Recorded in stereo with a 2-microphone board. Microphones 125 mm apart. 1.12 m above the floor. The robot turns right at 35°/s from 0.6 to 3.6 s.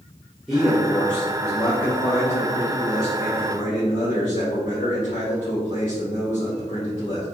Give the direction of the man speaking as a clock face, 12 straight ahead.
12 o'clock.